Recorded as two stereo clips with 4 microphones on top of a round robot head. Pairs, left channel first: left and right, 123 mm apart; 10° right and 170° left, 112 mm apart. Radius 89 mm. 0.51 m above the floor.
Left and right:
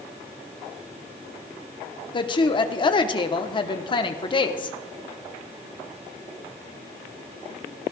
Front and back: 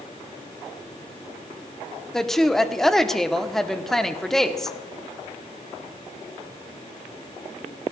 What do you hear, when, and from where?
2.1 s a woman speaking: 75° left, 0.9 m